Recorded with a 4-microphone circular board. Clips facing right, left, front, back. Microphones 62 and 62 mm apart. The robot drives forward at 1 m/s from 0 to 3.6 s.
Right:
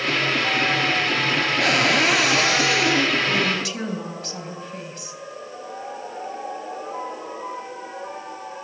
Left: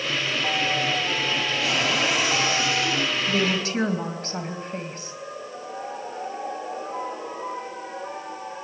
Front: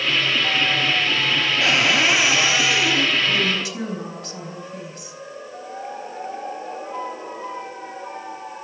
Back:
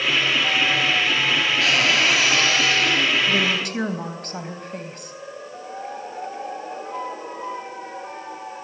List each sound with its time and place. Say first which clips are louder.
1.6 s a cupboard door: right 6 dB, front 2 dB; 65° right, 4.5 m; by 3.2 s 85° right, 4 m
3.3 s a woman speaking: right 1 dB, back 1 dB; 140° left, 3.5 m; by 5.1 s 145° left, 4 m